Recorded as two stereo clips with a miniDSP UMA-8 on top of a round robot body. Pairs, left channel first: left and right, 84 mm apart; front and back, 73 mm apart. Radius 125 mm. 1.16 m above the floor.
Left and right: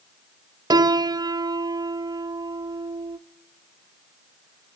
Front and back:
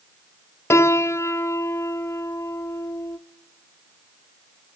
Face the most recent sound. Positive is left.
turn(degrees=-50)